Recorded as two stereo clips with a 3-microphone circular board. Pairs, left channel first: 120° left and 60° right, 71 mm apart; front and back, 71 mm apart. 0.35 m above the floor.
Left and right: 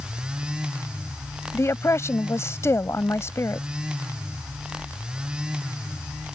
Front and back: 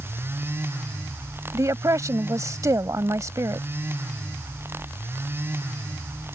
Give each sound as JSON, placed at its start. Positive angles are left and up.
{"t": 1.5, "sound": "a woman speaking", "azimuth_deg": 155}